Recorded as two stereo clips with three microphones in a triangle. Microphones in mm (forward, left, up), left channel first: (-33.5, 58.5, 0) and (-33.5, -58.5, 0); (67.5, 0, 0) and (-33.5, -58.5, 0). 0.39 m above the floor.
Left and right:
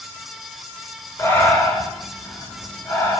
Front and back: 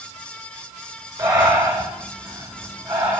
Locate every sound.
1.2 s breathing: 150° left, 4.5 m